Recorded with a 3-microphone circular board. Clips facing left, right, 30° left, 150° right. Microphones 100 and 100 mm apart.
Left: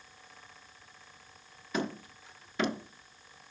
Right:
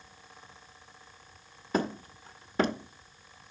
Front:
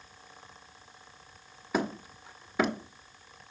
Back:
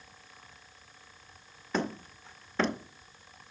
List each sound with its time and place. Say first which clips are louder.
1.7 s hammering: right 4 dB, front 2 dB; 50° right, 0.9 m